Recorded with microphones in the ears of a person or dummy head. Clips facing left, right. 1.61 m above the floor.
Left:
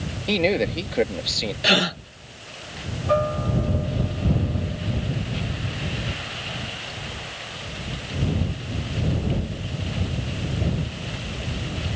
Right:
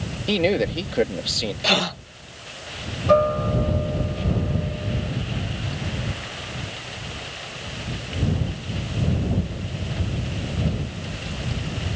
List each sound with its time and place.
0.3 s a man speaking: 5° right (ahead or behind)
1.6 s a gasp: 15° left (ahead or behind)
3.1 s a guitar: 50° right (ahead or behind)